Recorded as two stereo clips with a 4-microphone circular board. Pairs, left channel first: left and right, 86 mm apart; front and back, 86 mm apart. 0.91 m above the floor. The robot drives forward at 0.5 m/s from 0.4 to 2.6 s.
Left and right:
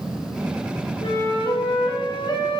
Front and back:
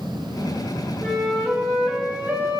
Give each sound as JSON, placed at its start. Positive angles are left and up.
{"t": 1.0, "sound": "a flute", "azimuth_deg": 80, "distance_m": 1.3}